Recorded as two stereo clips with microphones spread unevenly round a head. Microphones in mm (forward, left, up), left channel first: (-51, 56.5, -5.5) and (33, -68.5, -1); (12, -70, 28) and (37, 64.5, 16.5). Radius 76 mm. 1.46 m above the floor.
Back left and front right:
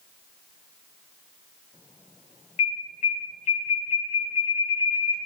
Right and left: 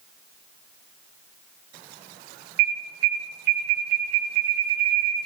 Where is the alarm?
70° left, 6 m.